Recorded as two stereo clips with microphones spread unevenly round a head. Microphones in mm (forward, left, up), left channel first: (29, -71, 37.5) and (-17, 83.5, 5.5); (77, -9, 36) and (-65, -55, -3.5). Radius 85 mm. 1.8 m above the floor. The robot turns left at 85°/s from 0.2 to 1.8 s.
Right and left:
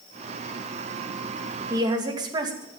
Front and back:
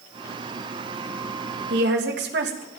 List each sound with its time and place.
1.7 s a woman speaking: 175° right, 2.5 m; by 2.8 s 175° left, 2.5 m